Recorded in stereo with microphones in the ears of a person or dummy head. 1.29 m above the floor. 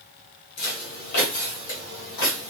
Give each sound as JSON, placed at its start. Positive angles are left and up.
{"t": 0.6, "sound": "footsteps", "side_deg": 50, "distance_m": 1.9}